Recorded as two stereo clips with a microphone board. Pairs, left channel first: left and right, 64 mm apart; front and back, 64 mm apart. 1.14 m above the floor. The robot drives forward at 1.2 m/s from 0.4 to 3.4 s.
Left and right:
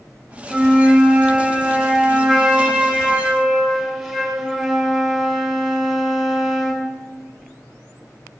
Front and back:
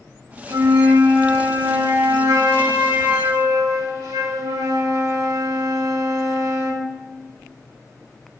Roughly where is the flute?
Behind.